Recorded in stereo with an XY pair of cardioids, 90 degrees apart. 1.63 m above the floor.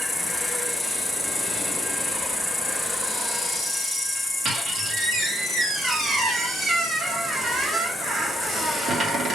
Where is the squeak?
55° right, 2.5 m.